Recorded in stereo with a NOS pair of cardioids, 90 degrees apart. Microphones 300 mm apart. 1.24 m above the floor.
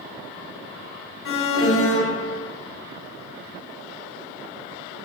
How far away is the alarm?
About 1.0 m.